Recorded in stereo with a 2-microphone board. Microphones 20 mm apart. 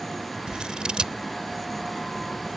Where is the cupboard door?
No cupboard door in this recording.